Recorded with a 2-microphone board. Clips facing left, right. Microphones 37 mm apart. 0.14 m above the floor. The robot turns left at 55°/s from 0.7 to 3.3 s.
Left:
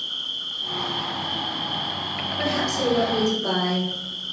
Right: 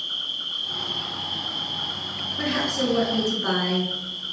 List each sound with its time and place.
0.0 s an insect: 10° right, 1.5 m; by 4.3 s 150° right, 1.5 m
2.4 s a woman speaking: 20° right, 1.4 m; by 3.9 s 75° right, 1.4 m